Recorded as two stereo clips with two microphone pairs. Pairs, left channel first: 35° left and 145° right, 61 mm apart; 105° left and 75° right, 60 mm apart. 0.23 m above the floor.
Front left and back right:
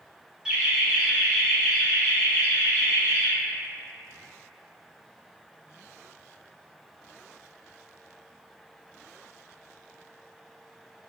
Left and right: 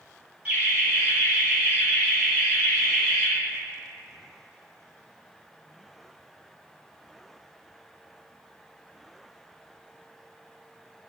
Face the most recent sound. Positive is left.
turn(degrees=5)